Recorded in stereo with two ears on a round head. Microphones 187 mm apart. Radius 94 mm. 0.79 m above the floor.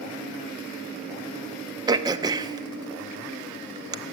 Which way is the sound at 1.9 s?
20° right (ahead or behind).